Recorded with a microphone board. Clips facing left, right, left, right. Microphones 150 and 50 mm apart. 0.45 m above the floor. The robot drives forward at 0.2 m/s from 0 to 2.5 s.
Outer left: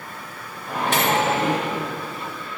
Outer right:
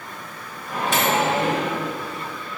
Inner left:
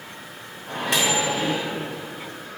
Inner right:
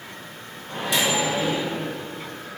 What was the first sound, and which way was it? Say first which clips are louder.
A microwave: even, inner left 1 dB; 60° left (ahead or behind).